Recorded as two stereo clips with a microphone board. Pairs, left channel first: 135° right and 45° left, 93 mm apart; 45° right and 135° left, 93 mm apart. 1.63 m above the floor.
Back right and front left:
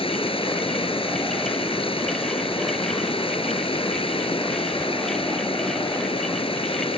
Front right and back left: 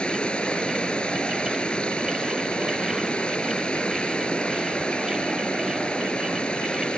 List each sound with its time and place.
0.0 s running water: 125° right